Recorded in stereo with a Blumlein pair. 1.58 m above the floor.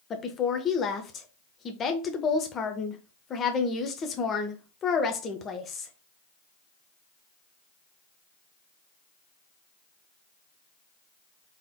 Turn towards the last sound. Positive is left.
turn(degrees=25)